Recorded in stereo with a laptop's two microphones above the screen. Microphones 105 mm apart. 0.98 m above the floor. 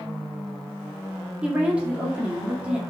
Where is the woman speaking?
10° right (ahead or behind), 2 m.